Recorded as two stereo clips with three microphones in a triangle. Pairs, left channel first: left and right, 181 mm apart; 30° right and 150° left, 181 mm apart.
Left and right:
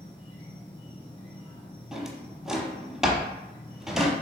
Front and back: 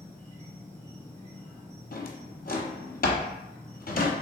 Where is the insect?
40° left, 1.5 m.